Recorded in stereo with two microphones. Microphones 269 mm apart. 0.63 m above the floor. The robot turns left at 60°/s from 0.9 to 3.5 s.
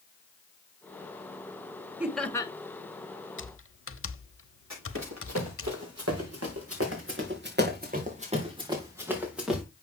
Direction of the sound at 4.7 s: 80° right.